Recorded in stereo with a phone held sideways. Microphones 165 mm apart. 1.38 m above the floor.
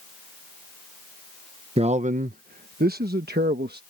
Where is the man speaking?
35° right (ahead or behind); by 3.8 s 80° right.